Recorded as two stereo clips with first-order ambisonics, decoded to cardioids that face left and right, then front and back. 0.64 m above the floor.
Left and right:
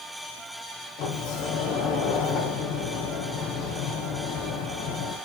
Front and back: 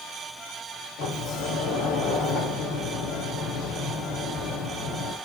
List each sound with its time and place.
1.0 s a sliding door: 50° left, 4 m